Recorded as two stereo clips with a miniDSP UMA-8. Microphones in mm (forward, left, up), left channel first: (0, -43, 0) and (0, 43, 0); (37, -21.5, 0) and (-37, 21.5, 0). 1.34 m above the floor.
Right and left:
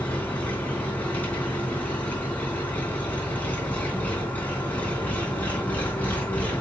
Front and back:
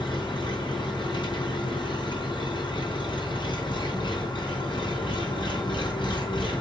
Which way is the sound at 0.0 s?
20° right.